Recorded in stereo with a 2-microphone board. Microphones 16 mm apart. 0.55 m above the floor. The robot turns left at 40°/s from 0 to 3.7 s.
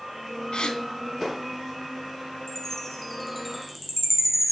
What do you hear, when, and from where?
0.5 s a gasp: 85° left, 3 m; by 0.8 s 80° left, 3 m
2.5 s a chime: 35° left, 5.5 m; by 4.5 s 15° right, 5.5 m